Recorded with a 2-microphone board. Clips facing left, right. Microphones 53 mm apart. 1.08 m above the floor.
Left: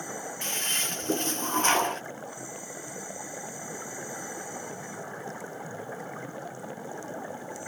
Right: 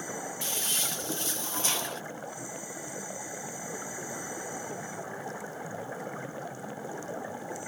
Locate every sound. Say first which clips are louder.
0.4 s a toilet flushing: left 6 dB; 45° left (ahead or behind)